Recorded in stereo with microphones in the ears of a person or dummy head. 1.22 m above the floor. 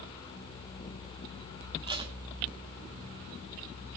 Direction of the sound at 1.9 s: 25° right (ahead or behind).